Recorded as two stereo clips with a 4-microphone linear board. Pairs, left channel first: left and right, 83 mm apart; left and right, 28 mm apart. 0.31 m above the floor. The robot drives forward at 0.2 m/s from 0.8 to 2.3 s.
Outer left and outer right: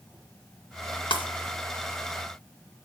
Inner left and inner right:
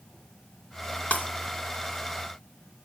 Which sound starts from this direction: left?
Breaking glass, at 1.1 s.